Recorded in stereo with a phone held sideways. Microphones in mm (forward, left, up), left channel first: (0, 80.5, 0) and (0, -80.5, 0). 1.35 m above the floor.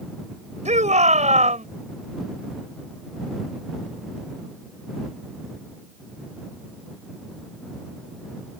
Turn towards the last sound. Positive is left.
turn(degrees=-45)  # may be behind; listen again after turning